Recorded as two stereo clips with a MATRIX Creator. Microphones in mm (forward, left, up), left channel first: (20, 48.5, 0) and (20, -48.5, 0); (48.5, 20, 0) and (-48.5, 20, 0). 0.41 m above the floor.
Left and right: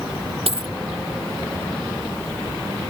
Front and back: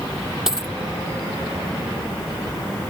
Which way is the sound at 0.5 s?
95° right.